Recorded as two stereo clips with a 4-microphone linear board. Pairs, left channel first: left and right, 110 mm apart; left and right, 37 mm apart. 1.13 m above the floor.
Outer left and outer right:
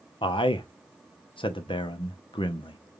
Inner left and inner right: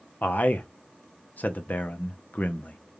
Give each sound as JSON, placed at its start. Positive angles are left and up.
{"t": 0.2, "sound": "a man speaking", "side_deg": 50, "distance_m": 0.7}